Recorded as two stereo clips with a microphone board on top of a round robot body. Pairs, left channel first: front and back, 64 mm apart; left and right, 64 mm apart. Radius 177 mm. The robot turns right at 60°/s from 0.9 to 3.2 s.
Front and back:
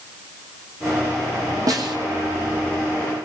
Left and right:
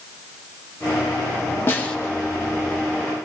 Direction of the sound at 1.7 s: 150° left.